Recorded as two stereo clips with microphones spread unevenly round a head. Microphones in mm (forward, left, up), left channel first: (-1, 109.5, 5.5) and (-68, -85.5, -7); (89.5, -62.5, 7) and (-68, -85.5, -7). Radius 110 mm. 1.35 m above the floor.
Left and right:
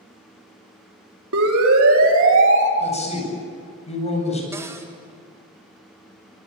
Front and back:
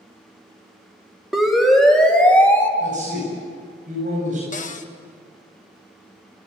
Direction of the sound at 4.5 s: 30° right.